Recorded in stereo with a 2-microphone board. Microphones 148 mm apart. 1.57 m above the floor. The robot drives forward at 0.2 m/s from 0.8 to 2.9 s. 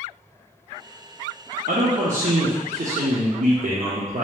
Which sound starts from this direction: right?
A man speaking, at 1.7 s.